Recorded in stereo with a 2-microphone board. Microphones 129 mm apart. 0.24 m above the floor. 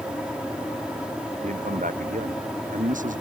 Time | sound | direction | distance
1.4 | a man speaking | 75° right (ahead or behind) | ?